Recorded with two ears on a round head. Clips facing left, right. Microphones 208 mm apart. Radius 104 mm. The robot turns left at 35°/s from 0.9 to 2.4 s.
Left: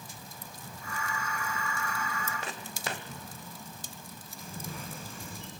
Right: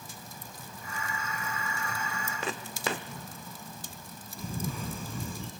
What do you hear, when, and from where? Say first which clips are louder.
2.4 s footsteps: right 5 dB; 65° right (ahead or behind), 1.0 m
4.4 s a camera shutter: right 7 dB; 75° right (ahead or behind), 3.5 m